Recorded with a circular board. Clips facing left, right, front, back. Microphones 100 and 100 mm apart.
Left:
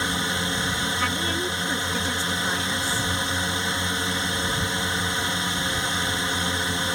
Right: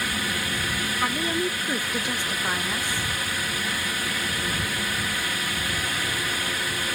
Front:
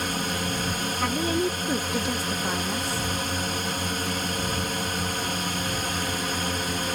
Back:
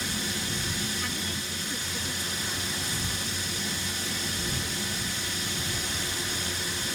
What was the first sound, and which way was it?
A drone, 25° left.